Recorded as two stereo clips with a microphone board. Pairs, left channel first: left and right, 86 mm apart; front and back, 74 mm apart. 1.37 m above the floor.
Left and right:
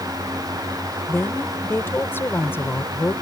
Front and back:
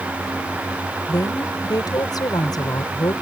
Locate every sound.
1.1 s a woman speaking: 25° left